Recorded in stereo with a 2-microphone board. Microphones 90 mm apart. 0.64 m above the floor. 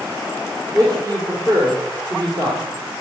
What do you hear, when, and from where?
0.7 s a man speaking: 45° right (ahead or behind), 2.5 m